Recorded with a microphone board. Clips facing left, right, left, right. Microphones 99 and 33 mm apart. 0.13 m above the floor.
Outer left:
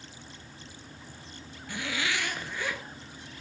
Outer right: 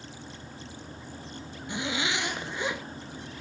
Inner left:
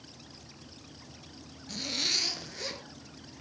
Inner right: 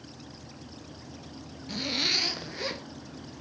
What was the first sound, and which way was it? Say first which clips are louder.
A zipper: outer right 2 dB, inner right 3 dB; 20° right (ahead or behind).